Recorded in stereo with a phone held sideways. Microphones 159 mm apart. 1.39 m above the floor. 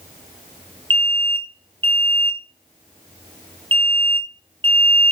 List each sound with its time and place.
0.9 s an alarm: 30° right (ahead or behind), 2 m